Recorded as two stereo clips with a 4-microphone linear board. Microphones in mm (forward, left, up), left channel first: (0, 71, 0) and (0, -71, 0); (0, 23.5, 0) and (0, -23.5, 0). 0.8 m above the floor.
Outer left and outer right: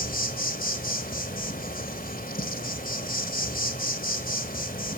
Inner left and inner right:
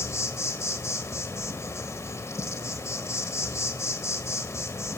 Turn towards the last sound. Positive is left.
turn(degrees=85)